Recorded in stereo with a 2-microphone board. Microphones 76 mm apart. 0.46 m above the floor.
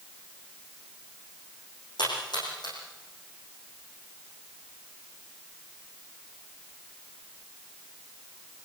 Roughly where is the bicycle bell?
No bicycle bell in this recording.